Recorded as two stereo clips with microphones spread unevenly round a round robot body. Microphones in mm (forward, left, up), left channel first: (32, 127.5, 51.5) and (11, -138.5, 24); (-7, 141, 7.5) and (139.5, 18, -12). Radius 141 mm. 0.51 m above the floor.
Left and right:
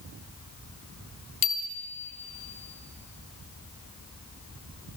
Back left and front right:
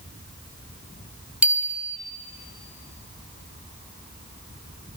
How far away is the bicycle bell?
About 2 m.